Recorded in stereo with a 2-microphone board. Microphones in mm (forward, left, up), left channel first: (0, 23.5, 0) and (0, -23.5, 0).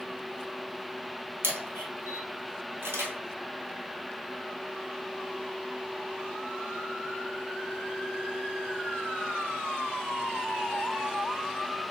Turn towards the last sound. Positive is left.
turn(degrees=-55)  # may be behind; listen again after turning